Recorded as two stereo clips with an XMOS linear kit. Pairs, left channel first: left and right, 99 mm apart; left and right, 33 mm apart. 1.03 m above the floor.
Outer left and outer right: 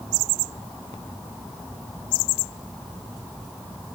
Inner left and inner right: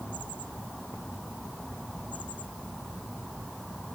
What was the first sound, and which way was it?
Only background noise.